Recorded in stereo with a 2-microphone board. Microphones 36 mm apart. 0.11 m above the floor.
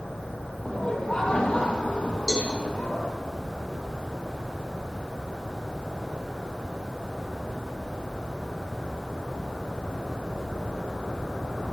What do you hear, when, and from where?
0.7 s laughter: 20° left (ahead or behind), 3.5 m; by 3.1 s 60° left (ahead or behind), 3 m
2.3 s a cowbell: 20° left (ahead or behind), 4.5 m